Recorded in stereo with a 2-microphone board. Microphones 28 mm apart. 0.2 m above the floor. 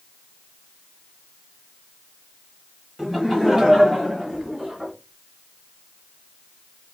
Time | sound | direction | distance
3.0 | laughter | 10° right (ahead or behind) | 1.4 m